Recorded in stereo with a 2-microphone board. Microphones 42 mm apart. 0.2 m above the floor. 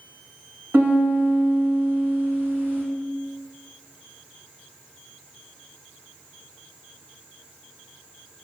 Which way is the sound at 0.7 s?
60° right (ahead or behind).